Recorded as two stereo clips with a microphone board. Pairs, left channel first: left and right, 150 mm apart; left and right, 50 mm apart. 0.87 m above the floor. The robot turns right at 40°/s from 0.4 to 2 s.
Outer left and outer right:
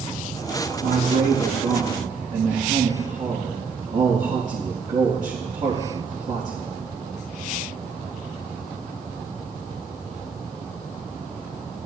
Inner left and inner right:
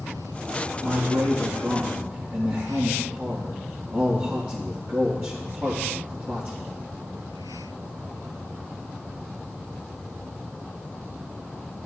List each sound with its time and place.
0.8 s a man speaking: 110° right, 1.6 m; by 6.7 s 65° right, 1.6 m